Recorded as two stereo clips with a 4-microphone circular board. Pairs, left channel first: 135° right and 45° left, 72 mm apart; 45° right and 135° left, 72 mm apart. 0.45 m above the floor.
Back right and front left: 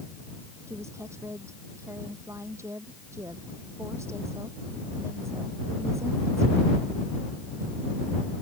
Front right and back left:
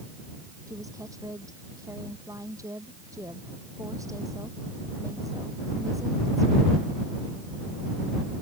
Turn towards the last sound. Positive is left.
turn(degrees=95)